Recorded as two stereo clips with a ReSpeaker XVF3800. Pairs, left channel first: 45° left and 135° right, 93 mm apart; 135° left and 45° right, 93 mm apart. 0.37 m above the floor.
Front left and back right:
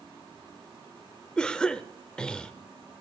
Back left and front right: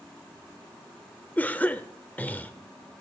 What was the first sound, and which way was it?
A cough, 105° left.